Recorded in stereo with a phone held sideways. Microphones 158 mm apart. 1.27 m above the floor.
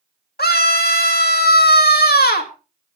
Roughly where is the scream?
Left.